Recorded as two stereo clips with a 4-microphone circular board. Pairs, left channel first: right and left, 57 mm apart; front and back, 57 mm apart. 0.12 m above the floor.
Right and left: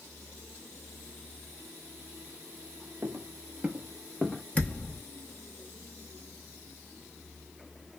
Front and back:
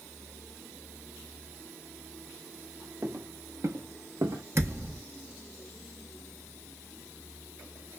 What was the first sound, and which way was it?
Footsteps, 135° left.